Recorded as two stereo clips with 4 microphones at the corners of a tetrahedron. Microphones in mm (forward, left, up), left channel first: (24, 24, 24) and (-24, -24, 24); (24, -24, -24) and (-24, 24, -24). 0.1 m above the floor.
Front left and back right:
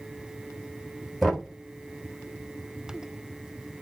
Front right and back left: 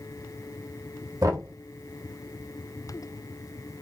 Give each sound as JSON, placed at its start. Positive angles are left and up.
{"t": 1.2, "sound": "knocking", "azimuth_deg": 135, "distance_m": 2.5}